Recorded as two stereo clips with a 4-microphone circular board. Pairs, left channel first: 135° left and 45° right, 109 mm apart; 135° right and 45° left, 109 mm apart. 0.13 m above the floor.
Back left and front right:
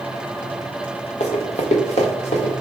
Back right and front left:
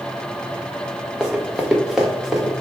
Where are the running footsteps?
130° left, 0.8 m; by 2.5 s 135° left, 1.8 m.